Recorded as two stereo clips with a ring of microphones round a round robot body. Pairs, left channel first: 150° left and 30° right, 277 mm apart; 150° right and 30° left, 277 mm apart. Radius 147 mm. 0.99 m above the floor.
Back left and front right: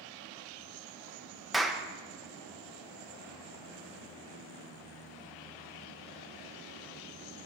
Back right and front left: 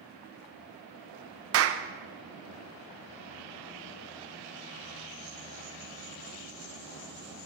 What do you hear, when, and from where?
1.5 s a clap: 60° left, 0.6 m